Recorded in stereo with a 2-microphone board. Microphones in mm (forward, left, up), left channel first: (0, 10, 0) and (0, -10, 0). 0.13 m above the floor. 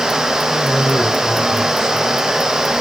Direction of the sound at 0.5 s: 50° left (ahead or behind).